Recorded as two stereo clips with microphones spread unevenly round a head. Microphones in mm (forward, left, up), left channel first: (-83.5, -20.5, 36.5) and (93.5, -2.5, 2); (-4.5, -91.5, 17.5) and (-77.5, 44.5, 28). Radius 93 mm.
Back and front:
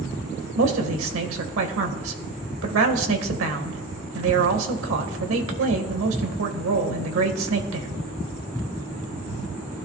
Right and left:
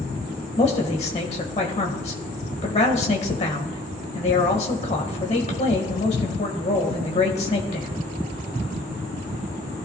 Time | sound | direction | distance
0.6 | a man speaking | straight ahead | 1.9 m